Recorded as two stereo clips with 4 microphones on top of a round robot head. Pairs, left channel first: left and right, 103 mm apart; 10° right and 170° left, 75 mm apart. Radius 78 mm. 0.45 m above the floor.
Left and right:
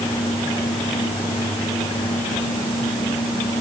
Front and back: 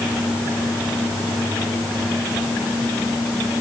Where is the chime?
No chime in this recording.